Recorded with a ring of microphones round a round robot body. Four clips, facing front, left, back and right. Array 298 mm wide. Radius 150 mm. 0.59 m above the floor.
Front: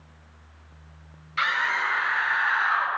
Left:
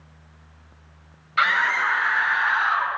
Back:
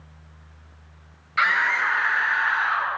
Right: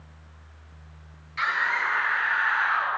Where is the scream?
110° left, 2.5 m; by 2.9 s 90° left, 4 m.